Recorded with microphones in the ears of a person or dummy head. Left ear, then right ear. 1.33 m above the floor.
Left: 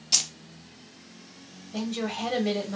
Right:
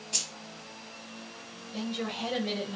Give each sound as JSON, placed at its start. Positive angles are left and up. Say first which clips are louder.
{"t": 0.1, "sound": "keys jangling", "louder": "left 8 dB", "side_deg": 60, "distance_m": 0.5}
{"t": 1.7, "sound": "a woman speaking", "louder": "left 3 dB", "side_deg": 55, "distance_m": 1.2}